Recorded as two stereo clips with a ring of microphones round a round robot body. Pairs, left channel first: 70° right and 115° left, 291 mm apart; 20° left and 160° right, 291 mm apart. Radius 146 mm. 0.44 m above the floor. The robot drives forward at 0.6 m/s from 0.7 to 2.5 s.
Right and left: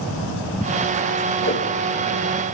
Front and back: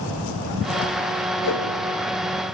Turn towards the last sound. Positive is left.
turn(degrees=-25)